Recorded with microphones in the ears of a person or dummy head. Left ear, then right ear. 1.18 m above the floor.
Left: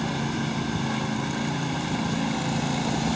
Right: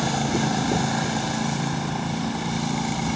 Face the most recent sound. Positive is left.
No sound to turn to.